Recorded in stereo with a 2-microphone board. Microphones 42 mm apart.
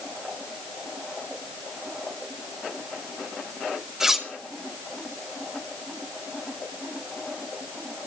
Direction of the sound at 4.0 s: 10° right (ahead or behind).